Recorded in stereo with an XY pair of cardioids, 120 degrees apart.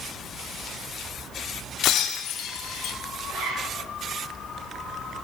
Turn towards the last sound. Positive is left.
turn(degrees=-70)